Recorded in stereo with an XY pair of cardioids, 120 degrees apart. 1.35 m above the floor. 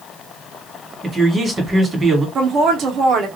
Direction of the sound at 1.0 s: 25° right.